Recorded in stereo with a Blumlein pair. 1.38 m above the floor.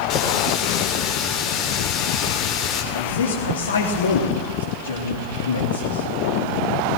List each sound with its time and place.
0.1 s a running tap: 35° left, 3.5 m
2.9 s a man speaking: 65° left, 3.5 m